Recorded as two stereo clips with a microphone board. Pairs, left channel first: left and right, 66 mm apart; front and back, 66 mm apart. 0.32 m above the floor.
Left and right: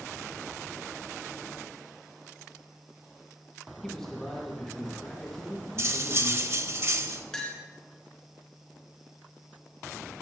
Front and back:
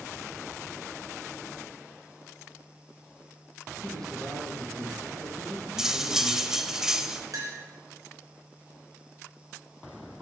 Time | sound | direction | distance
3.8 | a man speaking | 170° left | 3 m
5.8 | cutlery clinking | 100° right | 0.6 m
7.3 | a clink | 170° left | 3 m